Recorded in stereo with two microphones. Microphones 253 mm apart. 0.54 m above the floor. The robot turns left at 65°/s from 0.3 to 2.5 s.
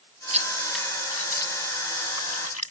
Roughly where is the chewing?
Right.